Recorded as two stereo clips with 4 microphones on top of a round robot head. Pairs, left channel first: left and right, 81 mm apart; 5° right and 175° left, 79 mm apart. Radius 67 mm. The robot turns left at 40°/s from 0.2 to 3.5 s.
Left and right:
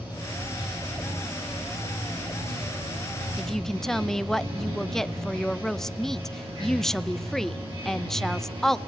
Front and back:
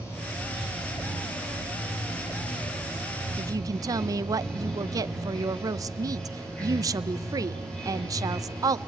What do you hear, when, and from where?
0.0 s running water: 50° left, 9 m; by 8.9 s 80° right, 9 m
3.4 s a woman speaking: straight behind, 0.8 m; by 8.8 s 175° left, 0.8 m